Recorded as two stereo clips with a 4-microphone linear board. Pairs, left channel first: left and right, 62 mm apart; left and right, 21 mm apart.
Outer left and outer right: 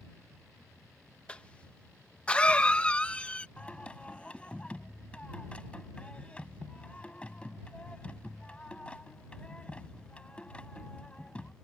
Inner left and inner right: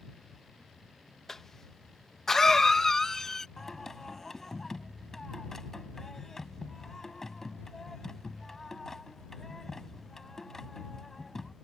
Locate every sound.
1.3 s a cough: 20° left (ahead or behind)
3.6 s singing: 15° left (ahead or behind)